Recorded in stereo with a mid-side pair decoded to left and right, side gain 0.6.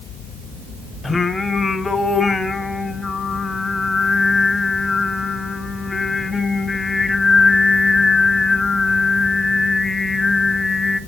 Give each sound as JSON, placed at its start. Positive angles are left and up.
{"t": 1.0, "sound": "singing", "azimuth_deg": 10, "distance_m": 3.0}